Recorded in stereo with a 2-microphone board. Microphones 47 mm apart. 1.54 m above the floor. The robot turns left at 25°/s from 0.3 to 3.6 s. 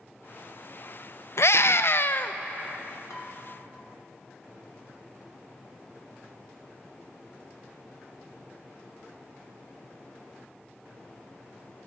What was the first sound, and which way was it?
A scream, 65° left (ahead or behind).